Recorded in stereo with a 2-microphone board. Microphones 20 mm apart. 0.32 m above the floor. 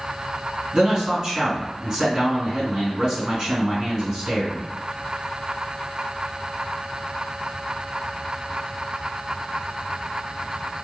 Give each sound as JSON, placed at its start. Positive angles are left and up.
{"t": 0.7, "sound": "a man speaking", "side_deg": -30, "distance_m": 1.7}